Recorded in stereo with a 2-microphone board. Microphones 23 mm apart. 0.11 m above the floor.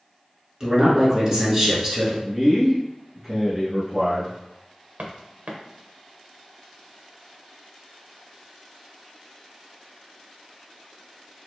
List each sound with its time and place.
0.6 s a man speaking: 25° right (ahead or behind), 1.4 m
2.2 s a man speaking: 15° right (ahead or behind), 1.3 m
5.0 s footsteps: 80° right, 1.4 m